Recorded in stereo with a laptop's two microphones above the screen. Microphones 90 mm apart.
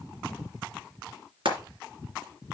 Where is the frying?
75° right (ahead or behind), 3 m.